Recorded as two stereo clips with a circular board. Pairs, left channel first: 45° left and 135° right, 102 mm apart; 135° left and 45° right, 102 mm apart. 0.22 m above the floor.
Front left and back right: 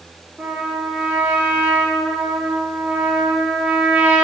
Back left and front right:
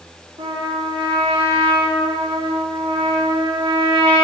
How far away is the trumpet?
About 3.5 m.